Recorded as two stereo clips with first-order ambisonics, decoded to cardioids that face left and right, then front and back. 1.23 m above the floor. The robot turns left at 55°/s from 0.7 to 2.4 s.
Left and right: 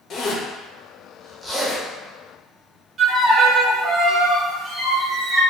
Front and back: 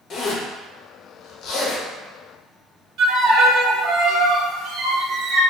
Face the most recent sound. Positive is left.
turn(degrees=-155)